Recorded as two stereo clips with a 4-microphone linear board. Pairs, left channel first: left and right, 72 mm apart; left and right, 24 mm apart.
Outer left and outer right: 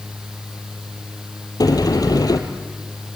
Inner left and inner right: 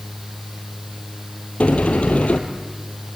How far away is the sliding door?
About 2.5 m.